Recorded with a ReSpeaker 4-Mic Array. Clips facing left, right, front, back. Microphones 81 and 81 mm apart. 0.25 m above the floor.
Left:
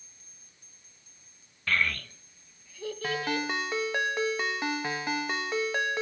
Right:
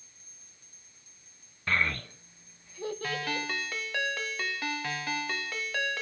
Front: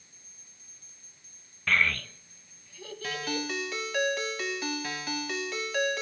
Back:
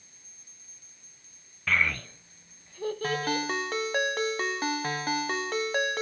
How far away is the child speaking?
About 0.5 m.